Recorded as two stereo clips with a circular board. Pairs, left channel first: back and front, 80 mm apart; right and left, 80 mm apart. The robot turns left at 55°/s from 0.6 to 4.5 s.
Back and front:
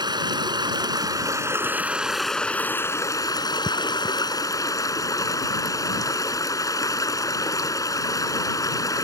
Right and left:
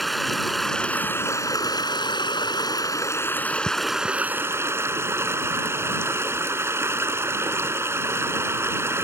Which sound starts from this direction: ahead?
Running water, at 0.0 s.